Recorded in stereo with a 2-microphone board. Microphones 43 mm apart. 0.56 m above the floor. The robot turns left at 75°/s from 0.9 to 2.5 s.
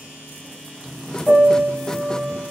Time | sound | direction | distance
1.3 | a piano | 160° left | 1.3 m